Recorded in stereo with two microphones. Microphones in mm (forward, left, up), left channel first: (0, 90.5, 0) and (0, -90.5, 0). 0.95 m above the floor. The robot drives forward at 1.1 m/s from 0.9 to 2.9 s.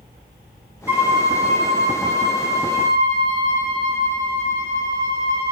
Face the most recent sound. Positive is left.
turn(degrees=-5)  # may be behind; listen again after turning